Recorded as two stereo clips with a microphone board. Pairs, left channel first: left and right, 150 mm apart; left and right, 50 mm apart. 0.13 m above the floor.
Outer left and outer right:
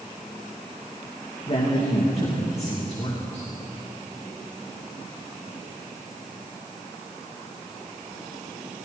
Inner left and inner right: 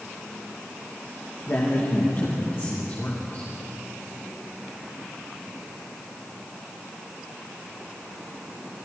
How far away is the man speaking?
About 8.5 m.